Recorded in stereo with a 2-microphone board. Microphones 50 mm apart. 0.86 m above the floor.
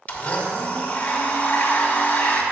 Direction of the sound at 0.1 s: 30° left (ahead or behind).